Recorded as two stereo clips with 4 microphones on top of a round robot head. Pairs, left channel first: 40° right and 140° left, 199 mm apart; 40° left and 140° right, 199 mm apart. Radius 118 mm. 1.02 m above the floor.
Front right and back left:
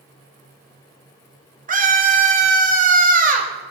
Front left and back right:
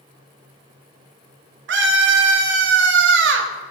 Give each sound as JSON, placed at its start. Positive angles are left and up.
{"t": 1.7, "sound": "a scream", "azimuth_deg": -170, "distance_m": 2.0}